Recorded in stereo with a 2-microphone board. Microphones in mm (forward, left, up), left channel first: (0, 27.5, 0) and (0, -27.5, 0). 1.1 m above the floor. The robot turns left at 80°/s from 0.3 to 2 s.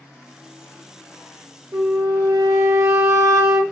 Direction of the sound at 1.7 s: 50° right (ahead or behind).